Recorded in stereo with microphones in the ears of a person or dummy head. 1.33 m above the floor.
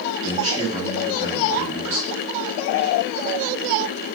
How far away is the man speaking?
About 2.5 m.